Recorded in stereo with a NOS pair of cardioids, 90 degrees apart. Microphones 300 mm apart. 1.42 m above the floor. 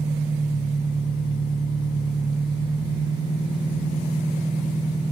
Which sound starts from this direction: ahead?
An engine running, at 0.0 s.